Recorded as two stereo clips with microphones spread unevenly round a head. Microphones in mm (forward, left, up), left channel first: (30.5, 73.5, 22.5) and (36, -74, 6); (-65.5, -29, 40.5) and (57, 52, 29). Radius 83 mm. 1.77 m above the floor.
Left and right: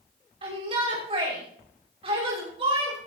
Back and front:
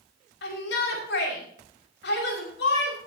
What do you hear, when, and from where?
0.4 s a shout: 150° right, 5.5 m